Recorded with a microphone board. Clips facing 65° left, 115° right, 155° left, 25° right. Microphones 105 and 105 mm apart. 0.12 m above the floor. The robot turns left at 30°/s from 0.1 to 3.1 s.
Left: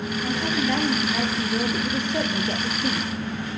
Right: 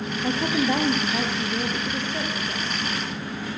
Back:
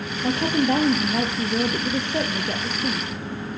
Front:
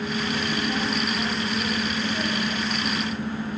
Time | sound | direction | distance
0.2 | a woman speaking | 170° right | 2 m